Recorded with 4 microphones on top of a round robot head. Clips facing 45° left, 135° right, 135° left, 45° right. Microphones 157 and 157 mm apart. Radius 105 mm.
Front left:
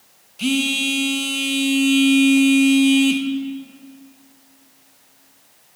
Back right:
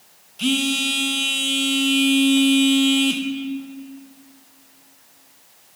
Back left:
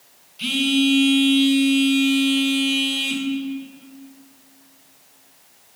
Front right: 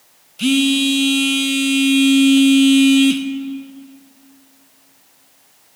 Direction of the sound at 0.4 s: 35° right.